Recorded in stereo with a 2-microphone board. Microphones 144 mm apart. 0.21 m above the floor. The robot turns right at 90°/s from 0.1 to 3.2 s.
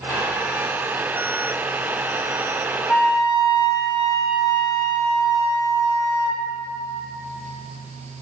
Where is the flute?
10° left (ahead or behind), 0.7 m; by 6.4 s 30° left (ahead or behind), 0.7 m.